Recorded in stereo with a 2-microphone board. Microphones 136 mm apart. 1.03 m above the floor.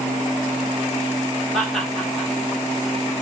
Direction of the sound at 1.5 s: Centre (ahead or behind).